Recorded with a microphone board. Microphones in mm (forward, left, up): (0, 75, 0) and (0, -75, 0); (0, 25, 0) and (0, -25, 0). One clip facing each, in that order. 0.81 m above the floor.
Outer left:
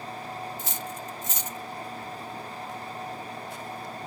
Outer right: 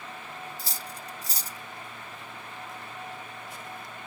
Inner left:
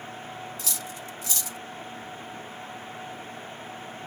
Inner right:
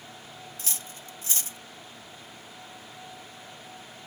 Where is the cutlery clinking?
35° right (ahead or behind).